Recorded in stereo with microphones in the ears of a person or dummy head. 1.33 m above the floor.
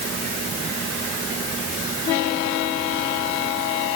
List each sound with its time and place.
Only background noise.